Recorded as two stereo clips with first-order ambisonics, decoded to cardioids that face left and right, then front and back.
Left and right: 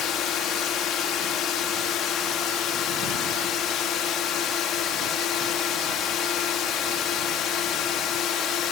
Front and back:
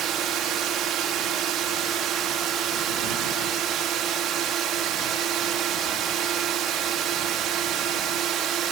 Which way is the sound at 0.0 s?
135° left.